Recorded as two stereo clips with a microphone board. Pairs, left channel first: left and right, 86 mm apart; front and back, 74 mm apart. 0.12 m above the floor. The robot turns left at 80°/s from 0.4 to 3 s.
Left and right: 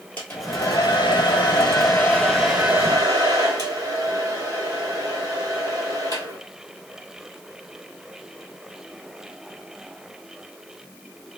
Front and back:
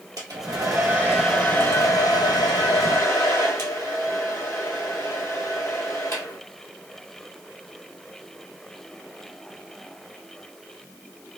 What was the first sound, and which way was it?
A hair dryer, 155° left.